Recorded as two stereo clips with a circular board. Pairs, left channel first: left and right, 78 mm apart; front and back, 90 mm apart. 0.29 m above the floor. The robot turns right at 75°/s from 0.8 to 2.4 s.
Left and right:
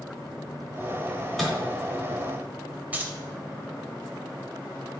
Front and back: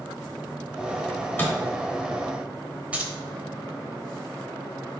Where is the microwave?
20° right, 1.0 m; by 1.6 s 15° left, 1.0 m.